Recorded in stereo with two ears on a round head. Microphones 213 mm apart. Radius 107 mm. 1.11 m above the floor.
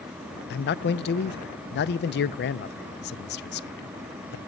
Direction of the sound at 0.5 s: 45° left (ahead or behind).